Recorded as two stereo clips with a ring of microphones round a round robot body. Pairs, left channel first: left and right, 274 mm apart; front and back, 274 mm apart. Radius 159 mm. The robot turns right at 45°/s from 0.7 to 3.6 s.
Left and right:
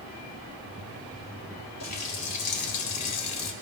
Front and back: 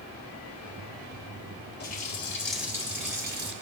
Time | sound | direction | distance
1.8 | a running tap | 55° left | 1.5 m